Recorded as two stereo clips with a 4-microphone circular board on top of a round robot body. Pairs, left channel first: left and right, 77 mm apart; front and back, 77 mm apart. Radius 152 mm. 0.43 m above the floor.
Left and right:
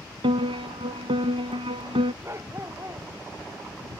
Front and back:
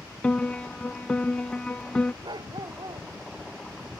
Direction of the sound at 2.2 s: 145° right.